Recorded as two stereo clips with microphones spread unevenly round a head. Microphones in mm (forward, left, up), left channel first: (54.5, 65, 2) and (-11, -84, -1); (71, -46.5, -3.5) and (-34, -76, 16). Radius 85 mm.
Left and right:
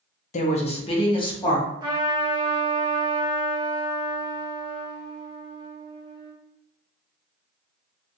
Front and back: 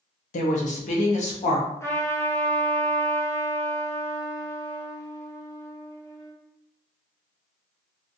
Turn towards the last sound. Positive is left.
turn(degrees=-50)